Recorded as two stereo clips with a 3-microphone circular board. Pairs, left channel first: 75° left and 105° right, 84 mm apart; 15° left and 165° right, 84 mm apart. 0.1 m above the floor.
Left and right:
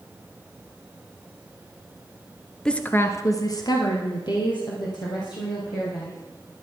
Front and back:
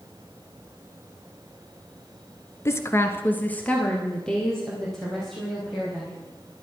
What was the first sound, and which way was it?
A woman speaking, straight ahead.